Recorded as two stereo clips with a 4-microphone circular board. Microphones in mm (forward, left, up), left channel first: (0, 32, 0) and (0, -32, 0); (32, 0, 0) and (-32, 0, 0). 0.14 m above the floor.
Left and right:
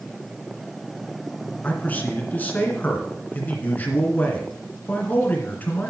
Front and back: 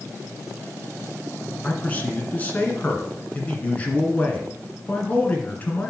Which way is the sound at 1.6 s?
50° left.